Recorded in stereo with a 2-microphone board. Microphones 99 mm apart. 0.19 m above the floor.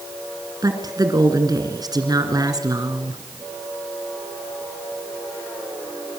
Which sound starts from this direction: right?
A woman speaking, at 0.6 s.